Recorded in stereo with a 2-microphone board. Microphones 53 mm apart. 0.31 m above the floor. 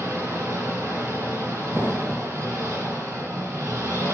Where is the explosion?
55° left (ahead or behind), 0.9 m.